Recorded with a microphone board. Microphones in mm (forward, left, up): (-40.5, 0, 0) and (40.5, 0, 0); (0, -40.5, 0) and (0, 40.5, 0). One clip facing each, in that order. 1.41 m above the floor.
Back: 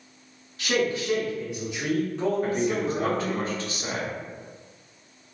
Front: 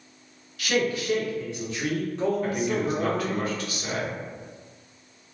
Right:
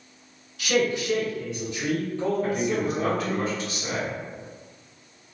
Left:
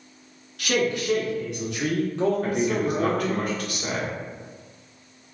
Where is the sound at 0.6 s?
120° left, 1.6 m; by 3.4 s 50° left, 0.9 m.